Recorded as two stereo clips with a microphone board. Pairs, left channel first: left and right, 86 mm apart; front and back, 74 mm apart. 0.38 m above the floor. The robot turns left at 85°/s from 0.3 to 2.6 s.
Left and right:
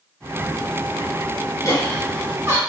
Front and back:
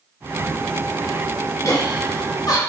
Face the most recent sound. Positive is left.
turn(degrees=-40)